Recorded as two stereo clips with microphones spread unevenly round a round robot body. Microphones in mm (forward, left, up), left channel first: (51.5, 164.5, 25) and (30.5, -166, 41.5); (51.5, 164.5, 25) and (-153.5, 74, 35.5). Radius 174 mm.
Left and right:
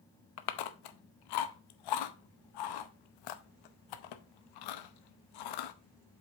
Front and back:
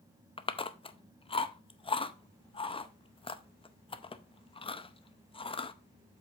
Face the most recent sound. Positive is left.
turn(degrees=90)